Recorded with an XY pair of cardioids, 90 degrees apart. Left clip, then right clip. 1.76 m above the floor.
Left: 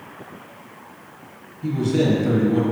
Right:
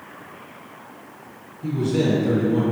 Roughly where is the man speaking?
Ahead left.